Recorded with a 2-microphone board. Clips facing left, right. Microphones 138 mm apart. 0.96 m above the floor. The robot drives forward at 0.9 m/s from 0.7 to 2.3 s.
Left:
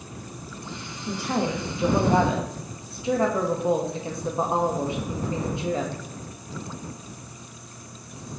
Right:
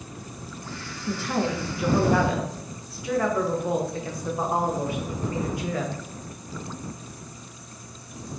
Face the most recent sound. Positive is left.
turn(degrees=25)  # may be behind; listen again after turning